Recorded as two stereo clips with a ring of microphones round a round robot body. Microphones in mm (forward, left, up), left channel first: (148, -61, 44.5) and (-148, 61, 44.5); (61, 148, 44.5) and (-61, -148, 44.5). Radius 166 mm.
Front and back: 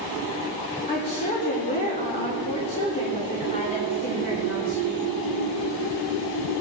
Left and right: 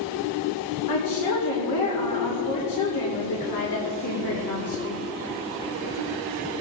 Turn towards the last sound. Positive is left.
turn(degrees=45)